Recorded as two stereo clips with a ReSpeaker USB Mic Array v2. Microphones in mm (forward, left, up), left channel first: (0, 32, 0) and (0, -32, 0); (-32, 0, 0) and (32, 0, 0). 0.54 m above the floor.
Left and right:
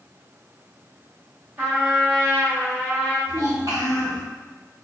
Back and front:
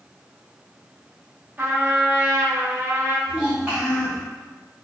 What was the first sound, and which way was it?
A trumpet, 45° right.